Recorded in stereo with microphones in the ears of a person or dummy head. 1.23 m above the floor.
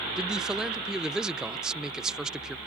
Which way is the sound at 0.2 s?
5° right (ahead or behind).